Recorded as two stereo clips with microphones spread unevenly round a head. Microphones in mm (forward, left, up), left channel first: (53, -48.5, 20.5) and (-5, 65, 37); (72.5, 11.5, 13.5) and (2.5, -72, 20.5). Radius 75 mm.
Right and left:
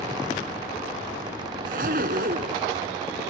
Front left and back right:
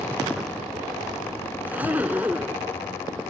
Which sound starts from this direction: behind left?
A zipper, at 1.6 s.